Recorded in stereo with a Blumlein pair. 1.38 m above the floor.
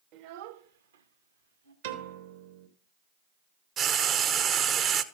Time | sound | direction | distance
0.1 | a child speaking | 40° right | 0.9 m
1.8 | a piano | 60° right | 1.4 m
3.8 | frying | 30° right | 0.7 m